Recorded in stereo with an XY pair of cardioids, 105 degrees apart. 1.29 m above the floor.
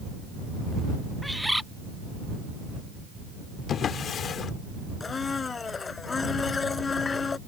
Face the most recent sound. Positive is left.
turn(degrees=35)